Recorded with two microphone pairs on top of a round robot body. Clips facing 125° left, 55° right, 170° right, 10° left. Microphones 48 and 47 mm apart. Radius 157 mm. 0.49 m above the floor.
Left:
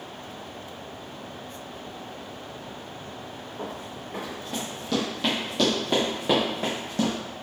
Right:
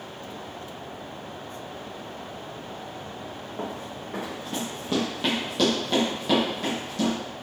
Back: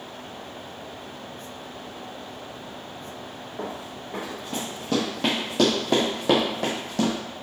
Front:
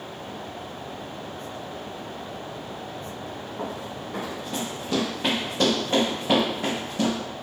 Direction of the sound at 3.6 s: 90° right.